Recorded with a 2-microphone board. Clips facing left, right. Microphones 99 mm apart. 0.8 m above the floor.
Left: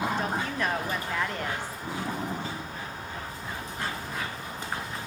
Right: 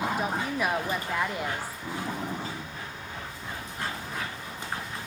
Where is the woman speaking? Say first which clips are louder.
Right 1 dB; 10° right (ahead or behind), 0.7 m.